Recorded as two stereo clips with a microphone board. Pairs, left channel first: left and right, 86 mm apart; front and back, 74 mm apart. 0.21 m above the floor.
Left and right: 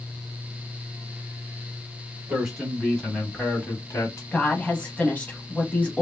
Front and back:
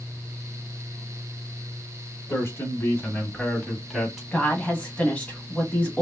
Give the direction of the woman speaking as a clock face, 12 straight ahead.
10 o'clock.